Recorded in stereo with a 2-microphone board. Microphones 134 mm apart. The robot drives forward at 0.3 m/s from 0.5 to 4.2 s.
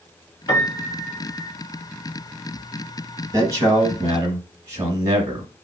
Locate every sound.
0.5 s a piano: 30° left (ahead or behind), 1.6 m
3.3 s a man speaking: 25° right (ahead or behind), 1.1 m